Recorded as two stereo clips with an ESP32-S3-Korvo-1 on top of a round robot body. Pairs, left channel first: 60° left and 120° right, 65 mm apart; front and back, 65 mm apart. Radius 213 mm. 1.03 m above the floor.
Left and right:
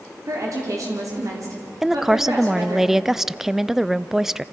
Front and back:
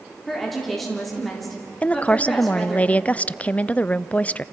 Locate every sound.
0.3 s a woman speaking: 90° right, 3.5 m
1.8 s a woman speaking: 40° right, 0.7 m